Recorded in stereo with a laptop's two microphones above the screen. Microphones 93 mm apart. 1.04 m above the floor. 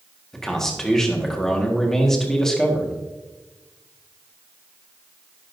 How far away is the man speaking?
About 1.6 m.